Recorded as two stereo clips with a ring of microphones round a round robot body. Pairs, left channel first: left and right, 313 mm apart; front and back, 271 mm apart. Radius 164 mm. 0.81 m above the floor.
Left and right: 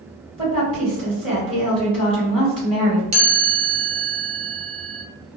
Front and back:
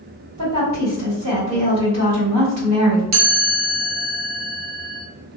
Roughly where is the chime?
Behind.